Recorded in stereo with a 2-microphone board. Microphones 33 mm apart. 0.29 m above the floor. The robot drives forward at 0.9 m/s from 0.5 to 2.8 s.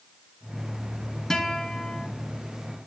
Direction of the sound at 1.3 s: 15° left (ahead or behind).